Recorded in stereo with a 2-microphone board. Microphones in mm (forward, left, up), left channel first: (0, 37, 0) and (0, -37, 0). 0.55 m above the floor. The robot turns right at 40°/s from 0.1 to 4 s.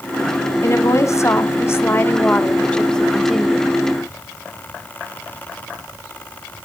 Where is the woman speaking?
75° left, 1.2 m; by 3.7 s 165° right, 1.2 m.